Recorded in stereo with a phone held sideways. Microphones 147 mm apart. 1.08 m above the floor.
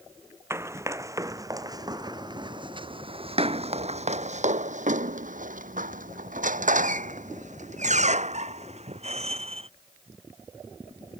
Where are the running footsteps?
15° right (ahead or behind); by 9.7 s 40° right (ahead or behind).